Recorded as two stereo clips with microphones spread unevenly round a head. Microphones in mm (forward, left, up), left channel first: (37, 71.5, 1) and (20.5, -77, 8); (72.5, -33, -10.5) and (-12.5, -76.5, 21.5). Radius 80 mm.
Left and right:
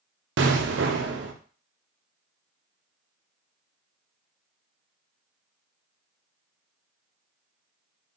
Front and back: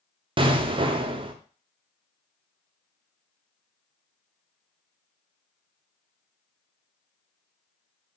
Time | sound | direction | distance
0.4 | an explosion | 110° right | 0.6 m